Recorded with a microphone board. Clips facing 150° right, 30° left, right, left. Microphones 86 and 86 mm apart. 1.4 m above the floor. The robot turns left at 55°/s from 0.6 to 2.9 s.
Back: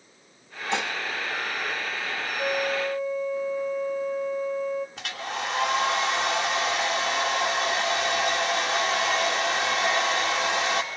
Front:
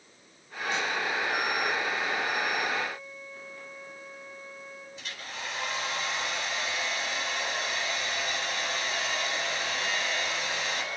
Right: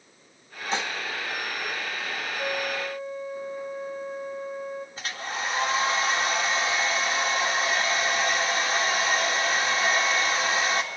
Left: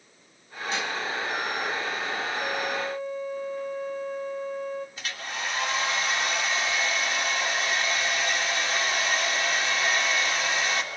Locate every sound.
0.7 s dishes clattering: 150° right, 1.6 m; by 0.9 s 160° right, 1.6 m
2.4 s a flute: 150° right, 1.4 m; by 4.9 s straight behind, 1.4 m
5.0 s a hair dryer: 145° right, 3 m